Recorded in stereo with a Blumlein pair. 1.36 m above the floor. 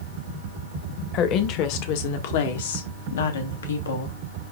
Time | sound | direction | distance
1.1 | a woman speaking | 35° left | 1.8 m